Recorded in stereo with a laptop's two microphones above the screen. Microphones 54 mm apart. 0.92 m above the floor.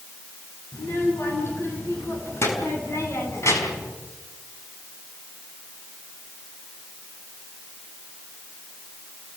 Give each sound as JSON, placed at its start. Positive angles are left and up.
{"t": 0.7, "sound": "a child speaking", "side_deg": 45, "distance_m": 7.5}